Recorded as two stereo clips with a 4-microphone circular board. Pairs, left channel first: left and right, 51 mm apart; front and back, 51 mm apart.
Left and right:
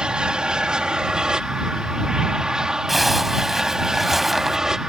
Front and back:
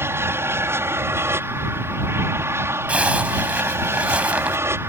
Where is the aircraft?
160° right; by 4.9 s 170° right.